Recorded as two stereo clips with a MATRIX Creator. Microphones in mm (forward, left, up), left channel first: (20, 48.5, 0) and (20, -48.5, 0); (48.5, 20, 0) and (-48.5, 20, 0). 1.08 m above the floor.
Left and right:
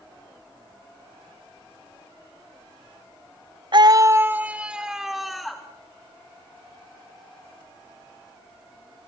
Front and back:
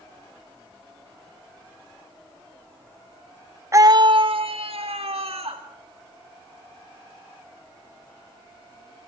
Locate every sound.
3.7 s a scream: 120° right, 0.6 m; by 5.6 s straight behind, 2 m